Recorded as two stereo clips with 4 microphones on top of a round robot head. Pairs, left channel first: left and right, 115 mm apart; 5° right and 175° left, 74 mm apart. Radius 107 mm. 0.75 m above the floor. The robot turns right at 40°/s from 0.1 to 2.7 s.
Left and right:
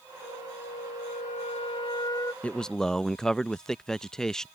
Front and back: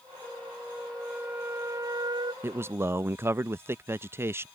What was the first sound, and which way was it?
A flute, 70° left.